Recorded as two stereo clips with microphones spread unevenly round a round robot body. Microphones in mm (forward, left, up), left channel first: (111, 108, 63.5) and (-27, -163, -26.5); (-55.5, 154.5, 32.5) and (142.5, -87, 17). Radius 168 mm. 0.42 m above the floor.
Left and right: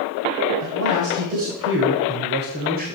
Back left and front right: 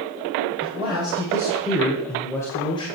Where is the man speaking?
120° right, 2 m; by 3.0 s 160° right, 1.7 m.